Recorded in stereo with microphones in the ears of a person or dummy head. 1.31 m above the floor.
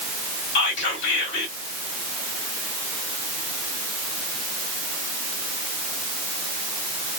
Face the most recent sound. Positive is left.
turn(degrees=65)  # may be behind; listen again after turning